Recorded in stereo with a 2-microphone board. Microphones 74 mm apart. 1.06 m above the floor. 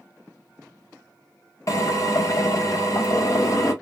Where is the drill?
50° left (ahead or behind), 0.9 m.